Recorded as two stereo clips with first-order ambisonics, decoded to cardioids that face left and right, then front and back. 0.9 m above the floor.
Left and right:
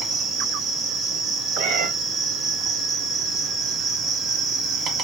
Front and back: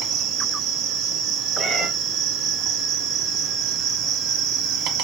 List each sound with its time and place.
0.0 s an insect: 150° right, 1.6 m
1.6 s a cat meowing: 85° right, 2.5 m